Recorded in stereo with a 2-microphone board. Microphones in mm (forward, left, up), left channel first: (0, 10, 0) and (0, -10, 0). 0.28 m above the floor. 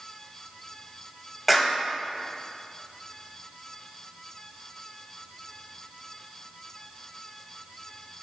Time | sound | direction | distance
1.5 | a clap | 10° right (ahead or behind) | 1.3 m